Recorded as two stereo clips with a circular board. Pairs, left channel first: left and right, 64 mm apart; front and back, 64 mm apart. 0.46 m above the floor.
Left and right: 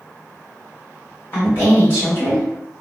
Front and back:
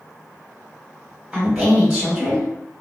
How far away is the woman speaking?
About 1.6 m.